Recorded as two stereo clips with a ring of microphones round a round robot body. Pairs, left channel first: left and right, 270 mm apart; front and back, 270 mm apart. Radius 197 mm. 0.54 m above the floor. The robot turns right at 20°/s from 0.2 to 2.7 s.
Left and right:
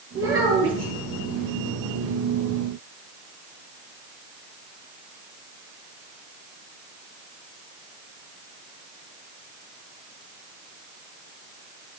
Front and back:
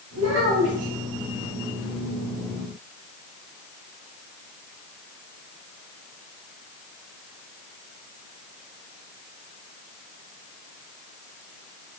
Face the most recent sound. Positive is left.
turn(degrees=-80)